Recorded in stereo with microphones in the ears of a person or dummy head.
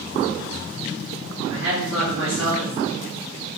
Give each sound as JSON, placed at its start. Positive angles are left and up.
{"t": 1.5, "sound": "a woman speaking", "side_deg": -60, "distance_m": 1.4}